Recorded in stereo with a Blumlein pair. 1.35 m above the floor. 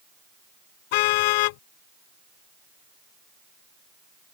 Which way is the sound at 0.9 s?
45° left.